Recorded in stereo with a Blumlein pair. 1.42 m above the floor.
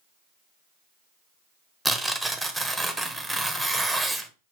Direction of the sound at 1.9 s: 5° right.